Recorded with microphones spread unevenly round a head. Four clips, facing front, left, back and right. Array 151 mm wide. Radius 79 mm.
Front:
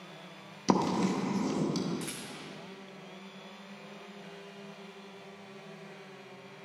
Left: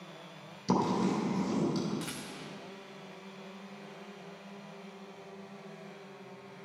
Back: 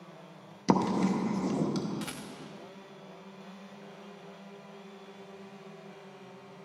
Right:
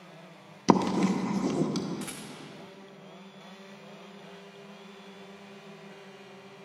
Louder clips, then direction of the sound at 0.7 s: Right 5 dB, back 1 dB; 80° right.